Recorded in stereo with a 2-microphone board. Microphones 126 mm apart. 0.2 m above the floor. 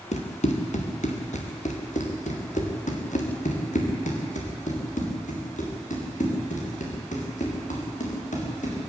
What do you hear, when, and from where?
0.1 s running footsteps: 65° left (ahead or behind), 3 m; by 8.8 s 75° left (ahead or behind), 7 m